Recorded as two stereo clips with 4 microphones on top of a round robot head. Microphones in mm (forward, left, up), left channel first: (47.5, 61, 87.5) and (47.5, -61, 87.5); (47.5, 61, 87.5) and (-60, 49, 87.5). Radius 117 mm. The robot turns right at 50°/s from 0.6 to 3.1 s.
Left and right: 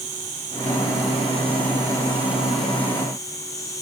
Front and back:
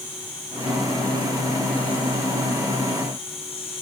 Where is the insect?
100° right, 6 m; by 3.8 s 25° left, 6 m.